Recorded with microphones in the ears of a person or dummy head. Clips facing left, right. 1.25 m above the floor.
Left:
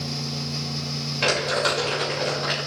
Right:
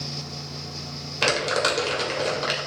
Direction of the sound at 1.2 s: 70° right (ahead or behind).